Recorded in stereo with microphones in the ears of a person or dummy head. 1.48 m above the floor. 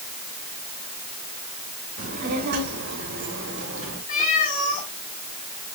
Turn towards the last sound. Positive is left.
turn(degrees=50)  # may be behind; listen again after turning